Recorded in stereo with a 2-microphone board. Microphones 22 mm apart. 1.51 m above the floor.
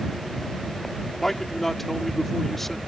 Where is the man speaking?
15° left (ahead or behind).